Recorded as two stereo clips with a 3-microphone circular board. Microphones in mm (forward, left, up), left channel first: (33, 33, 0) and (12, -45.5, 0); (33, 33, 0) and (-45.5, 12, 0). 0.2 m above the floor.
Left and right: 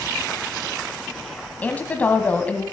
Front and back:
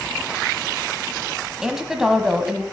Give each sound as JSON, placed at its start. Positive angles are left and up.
{"t": 1.6, "sound": "a woman speaking", "azimuth_deg": 120, "distance_m": 1.1}